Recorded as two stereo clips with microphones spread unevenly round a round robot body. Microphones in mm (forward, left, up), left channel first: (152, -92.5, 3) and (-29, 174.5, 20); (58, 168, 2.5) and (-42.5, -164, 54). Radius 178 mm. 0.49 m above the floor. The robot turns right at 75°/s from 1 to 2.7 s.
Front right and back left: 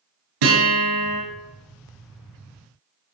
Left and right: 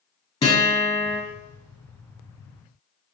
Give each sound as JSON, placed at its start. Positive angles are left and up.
{"t": 0.4, "sound": "a guitar", "azimuth_deg": 150, "distance_m": 6.0}